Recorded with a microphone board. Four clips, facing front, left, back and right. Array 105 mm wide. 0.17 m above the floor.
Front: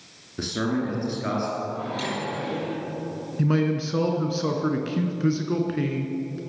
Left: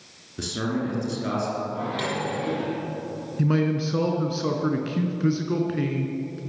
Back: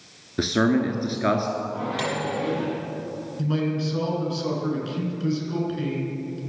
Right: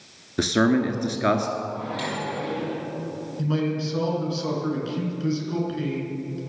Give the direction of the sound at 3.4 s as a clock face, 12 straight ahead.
11 o'clock.